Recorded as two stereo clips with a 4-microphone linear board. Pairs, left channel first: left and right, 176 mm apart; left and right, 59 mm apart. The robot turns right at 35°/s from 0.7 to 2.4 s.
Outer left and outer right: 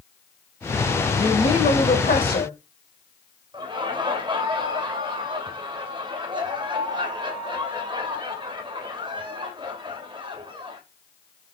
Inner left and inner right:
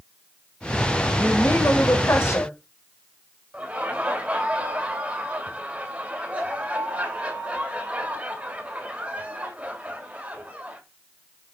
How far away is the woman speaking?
About 3 m.